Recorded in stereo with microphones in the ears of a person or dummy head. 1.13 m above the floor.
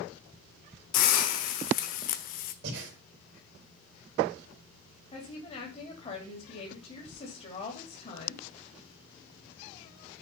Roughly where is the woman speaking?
Left.